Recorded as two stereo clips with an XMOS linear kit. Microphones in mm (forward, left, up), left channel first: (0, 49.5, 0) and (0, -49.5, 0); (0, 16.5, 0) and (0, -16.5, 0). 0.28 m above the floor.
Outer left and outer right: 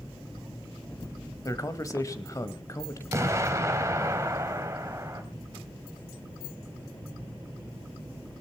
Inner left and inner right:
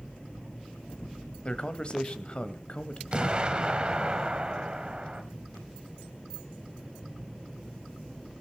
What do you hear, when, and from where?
1.4 s a man speaking: 35° left (ahead or behind), 1.1 m
3.1 s an explosion: 30° right (ahead or behind), 1.6 m